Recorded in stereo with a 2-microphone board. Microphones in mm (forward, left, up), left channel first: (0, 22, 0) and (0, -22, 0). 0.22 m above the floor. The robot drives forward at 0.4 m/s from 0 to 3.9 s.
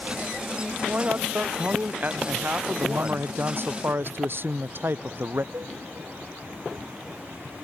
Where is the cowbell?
75° right (ahead or behind).